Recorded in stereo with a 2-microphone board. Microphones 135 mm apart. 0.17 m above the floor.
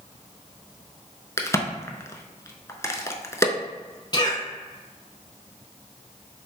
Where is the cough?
30° left (ahead or behind), 1.2 m.